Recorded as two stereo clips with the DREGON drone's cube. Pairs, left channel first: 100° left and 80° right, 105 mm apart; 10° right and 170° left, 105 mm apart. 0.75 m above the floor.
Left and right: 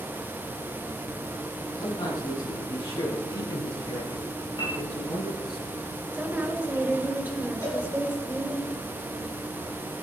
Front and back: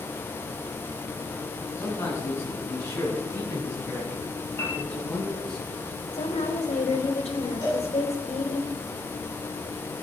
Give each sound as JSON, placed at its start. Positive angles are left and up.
{"t": 1.8, "sound": "a man speaking", "azimuth_deg": 50, "distance_m": 8.5}
{"t": 4.6, "sound": "a piano", "azimuth_deg": 55, "distance_m": 5.0}
{"t": 6.1, "sound": "a woman speaking", "azimuth_deg": -5, "distance_m": 3.0}
{"t": 7.6, "sound": "a cowbell", "azimuth_deg": 45, "distance_m": 7.0}